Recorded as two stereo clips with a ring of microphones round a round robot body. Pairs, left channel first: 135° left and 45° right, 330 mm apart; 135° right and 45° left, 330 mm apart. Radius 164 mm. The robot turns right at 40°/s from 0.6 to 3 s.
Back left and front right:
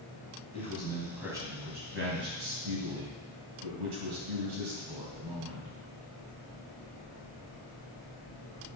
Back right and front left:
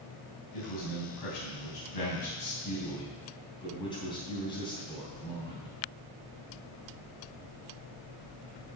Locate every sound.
0.5 s a man speaking: 155° right, 3.5 m; by 5.7 s 60° right, 3.5 m